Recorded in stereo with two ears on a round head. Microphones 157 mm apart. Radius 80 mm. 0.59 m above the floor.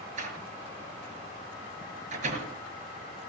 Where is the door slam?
45° right (ahead or behind), 6.5 m.